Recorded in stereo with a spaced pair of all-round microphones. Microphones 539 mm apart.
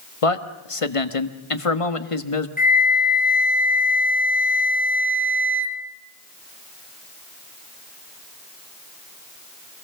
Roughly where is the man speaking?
Left.